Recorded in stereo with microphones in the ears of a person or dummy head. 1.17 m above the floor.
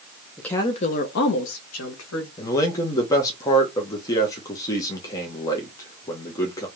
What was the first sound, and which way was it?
A woman speaking, 5° left (ahead or behind).